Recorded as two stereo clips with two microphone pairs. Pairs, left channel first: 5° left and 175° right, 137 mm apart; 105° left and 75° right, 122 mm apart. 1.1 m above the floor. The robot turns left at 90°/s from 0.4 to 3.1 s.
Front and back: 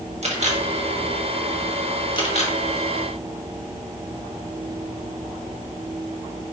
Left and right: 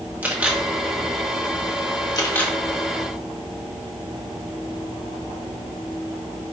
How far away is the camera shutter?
About 2 m.